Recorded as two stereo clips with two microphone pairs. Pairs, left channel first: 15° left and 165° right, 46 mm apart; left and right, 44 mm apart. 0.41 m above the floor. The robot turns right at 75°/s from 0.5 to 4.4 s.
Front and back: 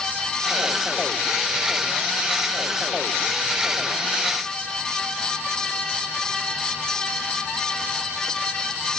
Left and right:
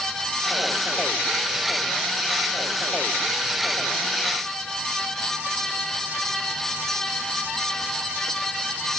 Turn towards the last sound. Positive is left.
No sound to turn to.